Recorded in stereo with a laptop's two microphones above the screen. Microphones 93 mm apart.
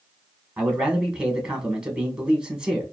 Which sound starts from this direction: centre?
A man speaking, at 0.6 s.